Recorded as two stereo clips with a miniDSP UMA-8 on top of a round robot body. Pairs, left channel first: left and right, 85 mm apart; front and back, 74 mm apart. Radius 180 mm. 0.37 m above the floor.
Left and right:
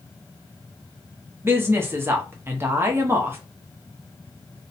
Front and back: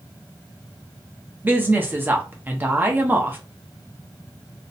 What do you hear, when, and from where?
1.4 s a woman speaking: 135° right, 0.9 m